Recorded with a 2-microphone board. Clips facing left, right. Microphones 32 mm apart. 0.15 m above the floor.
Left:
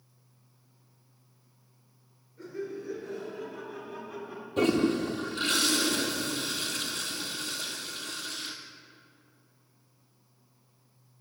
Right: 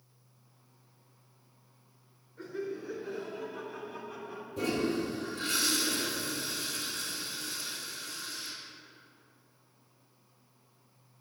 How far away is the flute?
No flute in this recording.